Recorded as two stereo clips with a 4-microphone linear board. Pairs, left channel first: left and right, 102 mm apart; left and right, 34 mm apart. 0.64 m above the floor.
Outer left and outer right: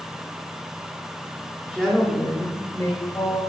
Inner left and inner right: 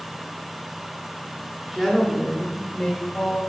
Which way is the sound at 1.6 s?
15° right (ahead or behind).